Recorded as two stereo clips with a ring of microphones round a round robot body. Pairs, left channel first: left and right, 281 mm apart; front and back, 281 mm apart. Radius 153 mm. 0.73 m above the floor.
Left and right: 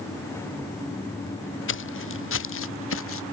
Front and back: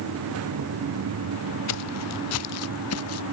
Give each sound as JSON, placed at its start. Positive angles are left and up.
{"t": 1.7, "sound": "footsteps", "azimuth_deg": 45}